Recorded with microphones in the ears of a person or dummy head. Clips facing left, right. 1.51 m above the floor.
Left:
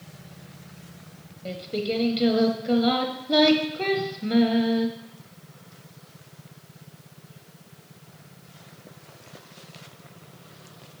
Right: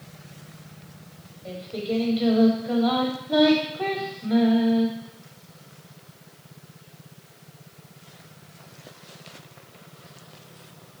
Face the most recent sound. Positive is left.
turn(degrees=30)  # may be behind; listen again after turning